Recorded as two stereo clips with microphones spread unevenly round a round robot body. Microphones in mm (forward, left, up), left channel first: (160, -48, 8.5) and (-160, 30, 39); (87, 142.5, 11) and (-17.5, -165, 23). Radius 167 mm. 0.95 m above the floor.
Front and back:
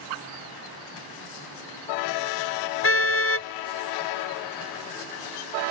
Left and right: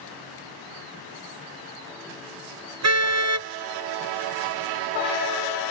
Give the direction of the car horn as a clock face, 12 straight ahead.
2 o'clock.